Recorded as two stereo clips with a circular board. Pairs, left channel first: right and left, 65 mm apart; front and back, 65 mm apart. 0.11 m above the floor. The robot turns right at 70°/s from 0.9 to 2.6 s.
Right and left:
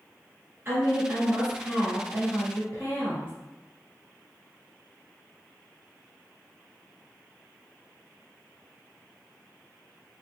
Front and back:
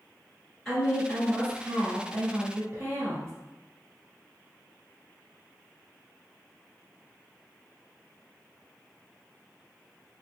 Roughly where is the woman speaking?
Left.